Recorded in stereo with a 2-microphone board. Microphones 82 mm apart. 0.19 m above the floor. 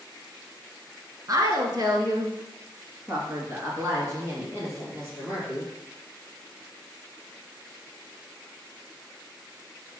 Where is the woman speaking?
50° right (ahead or behind), 1.8 m; by 5.7 s 25° right (ahead or behind), 4.5 m.